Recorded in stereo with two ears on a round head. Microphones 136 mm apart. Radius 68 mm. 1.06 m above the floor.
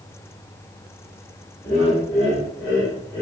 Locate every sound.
1.6 s laughter: 15° left (ahead or behind), 2.5 m